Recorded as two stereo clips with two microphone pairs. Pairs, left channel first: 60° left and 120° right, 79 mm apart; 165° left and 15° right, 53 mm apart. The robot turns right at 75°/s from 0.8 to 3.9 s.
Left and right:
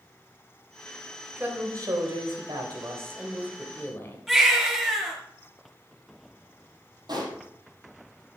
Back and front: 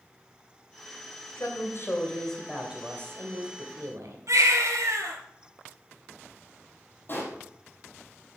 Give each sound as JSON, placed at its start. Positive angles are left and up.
{"t": 1.4, "sound": "a woman speaking", "azimuth_deg": 170, "distance_m": 3.0}
{"t": 4.3, "sound": "a baby crying", "azimuth_deg": -30, "distance_m": 5.0}
{"t": 7.1, "sound": "a pop", "azimuth_deg": -145, "distance_m": 5.0}